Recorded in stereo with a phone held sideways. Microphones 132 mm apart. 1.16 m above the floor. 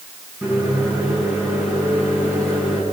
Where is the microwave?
15° right (ahead or behind), 8 m.